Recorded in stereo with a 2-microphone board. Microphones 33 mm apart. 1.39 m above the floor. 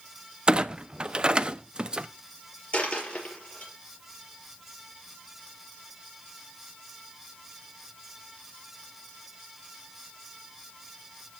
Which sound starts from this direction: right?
A clunk, at 0.5 s.